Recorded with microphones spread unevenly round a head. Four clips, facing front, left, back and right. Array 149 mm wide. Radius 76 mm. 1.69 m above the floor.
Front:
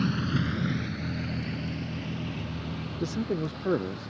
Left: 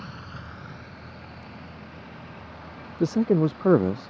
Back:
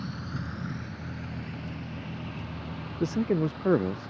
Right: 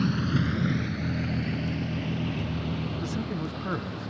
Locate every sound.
0.0 s a vehicle: 50° right; by 4.1 s 85° right
3.0 s a man speaking: 90° left